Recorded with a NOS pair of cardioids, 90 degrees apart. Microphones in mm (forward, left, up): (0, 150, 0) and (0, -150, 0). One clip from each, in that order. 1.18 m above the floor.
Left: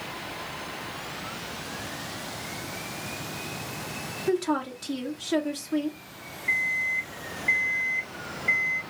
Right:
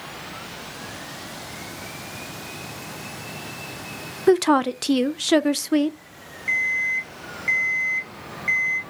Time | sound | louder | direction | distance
4.3 | a woman speaking | right 10 dB | 60° right | 0.5 m
6.5 | an alarm clock | right 4 dB | 60° right | 1.4 m